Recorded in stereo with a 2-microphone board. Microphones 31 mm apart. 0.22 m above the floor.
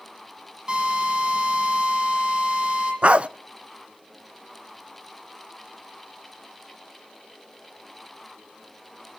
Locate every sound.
0.7 s a drill: 35° right (ahead or behind), 9.5 m
3.0 s a dog barking: 45° right (ahead or behind), 0.6 m